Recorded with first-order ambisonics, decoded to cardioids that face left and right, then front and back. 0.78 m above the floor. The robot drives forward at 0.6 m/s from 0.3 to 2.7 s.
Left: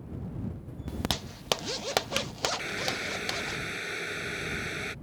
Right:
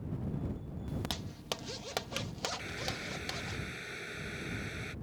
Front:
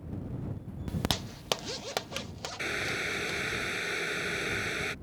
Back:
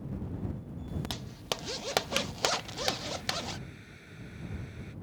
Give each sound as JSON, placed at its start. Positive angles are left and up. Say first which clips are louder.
{"t": 0.9, "sound": "a zipper", "louder": "left 8 dB, front 8 dB", "azimuth_deg": 35}
{"t": 2.6, "sound": "boiling", "louder": "left 7 dB, front 3 dB", "azimuth_deg": 25}